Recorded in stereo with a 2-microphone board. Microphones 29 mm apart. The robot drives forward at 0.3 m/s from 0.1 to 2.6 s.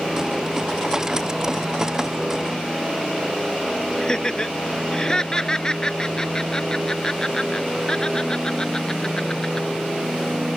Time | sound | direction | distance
4.0 | laughter | 25° left (ahead or behind) | ?